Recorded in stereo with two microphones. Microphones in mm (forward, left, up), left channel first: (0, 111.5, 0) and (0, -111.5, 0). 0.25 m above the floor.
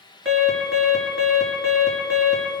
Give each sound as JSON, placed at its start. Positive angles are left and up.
{"t": 0.2, "sound": "an alarm", "side_deg": -65, "distance_m": 5.0}